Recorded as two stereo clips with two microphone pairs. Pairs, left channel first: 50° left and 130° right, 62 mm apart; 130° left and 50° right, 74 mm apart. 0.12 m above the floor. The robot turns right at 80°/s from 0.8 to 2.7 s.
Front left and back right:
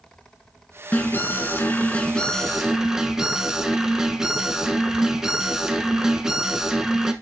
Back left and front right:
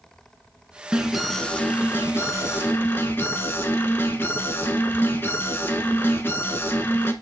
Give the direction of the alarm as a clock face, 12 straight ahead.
11 o'clock.